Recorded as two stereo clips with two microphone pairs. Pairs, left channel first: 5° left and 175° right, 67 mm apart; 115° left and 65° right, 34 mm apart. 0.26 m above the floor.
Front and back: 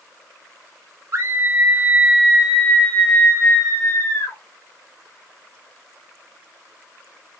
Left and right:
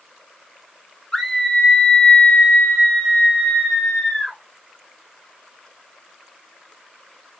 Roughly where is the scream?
Behind.